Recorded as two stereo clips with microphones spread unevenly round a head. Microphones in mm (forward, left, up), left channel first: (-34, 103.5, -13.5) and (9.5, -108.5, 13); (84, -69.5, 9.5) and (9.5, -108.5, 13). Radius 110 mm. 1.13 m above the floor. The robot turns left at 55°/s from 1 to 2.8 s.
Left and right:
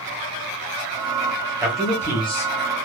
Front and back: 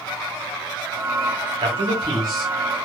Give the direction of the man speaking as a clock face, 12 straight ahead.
5 o'clock.